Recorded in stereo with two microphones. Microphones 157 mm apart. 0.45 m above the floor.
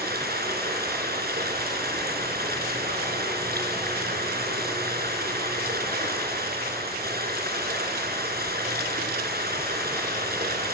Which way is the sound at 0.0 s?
80° right.